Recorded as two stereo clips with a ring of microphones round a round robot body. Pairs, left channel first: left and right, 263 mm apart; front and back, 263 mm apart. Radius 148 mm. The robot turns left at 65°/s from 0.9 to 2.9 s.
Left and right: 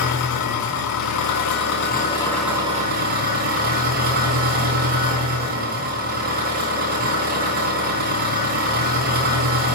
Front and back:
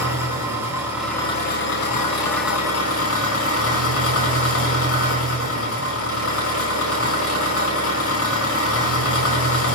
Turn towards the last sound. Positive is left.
turn(degrees=-30)